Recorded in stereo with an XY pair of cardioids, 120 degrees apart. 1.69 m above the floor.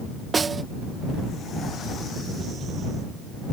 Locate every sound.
0.3 s a snare drum: 30° right